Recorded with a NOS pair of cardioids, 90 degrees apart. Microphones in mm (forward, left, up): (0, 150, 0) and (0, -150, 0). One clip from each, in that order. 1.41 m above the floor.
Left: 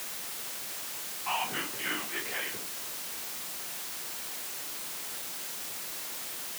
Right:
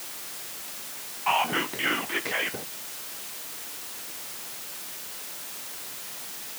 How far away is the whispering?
About 0.9 m.